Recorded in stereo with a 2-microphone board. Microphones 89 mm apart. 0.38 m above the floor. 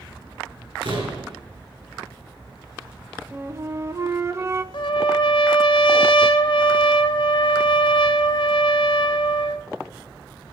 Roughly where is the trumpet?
Left.